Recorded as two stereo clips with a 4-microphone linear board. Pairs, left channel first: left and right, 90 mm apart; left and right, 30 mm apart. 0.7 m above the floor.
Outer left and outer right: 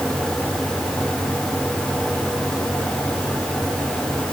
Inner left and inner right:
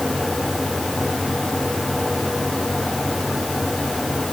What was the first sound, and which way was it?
Only background noise.